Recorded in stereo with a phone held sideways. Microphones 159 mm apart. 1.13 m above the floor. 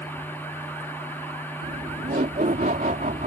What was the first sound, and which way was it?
A machine running, 10° left (ahead or behind).